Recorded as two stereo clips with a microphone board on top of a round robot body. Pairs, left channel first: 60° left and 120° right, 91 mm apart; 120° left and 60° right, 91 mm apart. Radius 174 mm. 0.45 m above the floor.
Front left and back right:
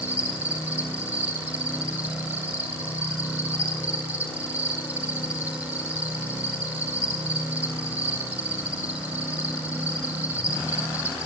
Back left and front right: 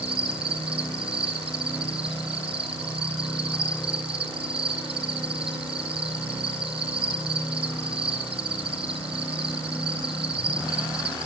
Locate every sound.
0.0 s an insect: 50° right, 4.5 m